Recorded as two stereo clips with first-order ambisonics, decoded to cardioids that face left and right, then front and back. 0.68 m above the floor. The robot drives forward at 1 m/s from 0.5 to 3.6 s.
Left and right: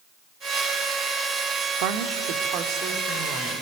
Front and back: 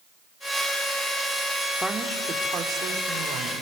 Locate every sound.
1.8 s a woman speaking: 90° right, 1.4 m; by 3.6 s 145° right, 2.5 m